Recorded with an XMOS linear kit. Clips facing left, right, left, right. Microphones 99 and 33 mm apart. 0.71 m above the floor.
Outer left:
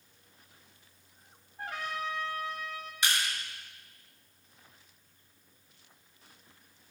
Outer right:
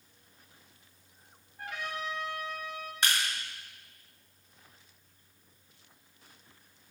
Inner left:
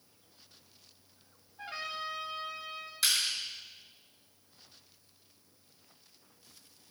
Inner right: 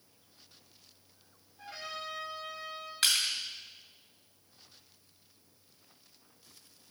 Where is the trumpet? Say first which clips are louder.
Outer left 1 dB, inner left 3 dB; 35° left (ahead or behind), 1.3 m.